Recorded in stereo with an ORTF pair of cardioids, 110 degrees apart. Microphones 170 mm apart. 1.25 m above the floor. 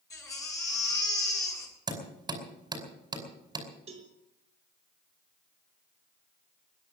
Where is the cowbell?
40° right, 4 m.